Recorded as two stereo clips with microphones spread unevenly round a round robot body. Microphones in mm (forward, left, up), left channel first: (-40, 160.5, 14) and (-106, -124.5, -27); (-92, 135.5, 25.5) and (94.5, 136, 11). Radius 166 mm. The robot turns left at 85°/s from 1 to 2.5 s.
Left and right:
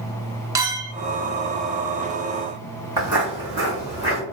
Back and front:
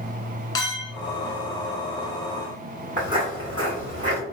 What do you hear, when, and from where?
0.6 s a clink: 135° right, 0.6 m
3.0 s footsteps: 65° right, 1.5 m; by 4.2 s 50° right, 2.5 m